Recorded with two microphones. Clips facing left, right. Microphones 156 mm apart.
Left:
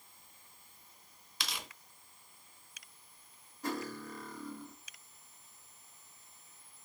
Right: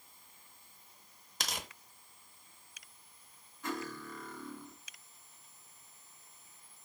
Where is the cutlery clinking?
35° left (ahead or behind), 1.0 m.